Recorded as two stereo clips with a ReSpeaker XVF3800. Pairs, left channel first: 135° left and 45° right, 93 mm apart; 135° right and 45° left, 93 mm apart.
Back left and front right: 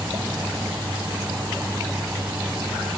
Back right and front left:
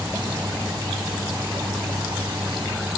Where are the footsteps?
I don't hear footsteps.